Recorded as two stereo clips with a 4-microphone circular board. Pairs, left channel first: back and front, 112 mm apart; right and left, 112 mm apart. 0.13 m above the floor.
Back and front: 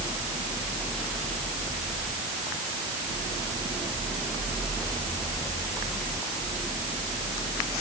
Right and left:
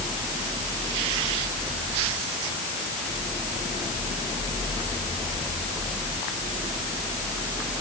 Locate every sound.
Only background noise.